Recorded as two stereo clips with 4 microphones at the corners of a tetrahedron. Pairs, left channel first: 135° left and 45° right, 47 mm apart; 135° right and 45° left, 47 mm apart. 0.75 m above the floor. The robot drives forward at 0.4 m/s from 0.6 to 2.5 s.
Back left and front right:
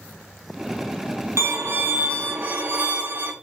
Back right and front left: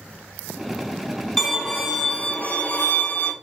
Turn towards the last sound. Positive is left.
turn(degrees=-80)